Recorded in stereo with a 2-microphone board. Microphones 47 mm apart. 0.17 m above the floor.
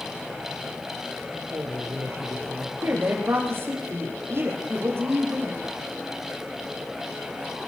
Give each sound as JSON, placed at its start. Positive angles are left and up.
{"t": 1.3, "sound": "a man speaking", "side_deg": -70, "distance_m": 4.0}
{"t": 2.8, "sound": "a woman speaking", "side_deg": -50, "distance_m": 6.0}